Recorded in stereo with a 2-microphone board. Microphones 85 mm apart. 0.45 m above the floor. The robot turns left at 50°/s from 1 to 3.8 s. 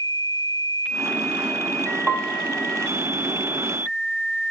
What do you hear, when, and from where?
2.1 s a piano: 10° right (ahead or behind), 0.8 m; by 2.5 s 20° right (ahead or behind), 0.8 m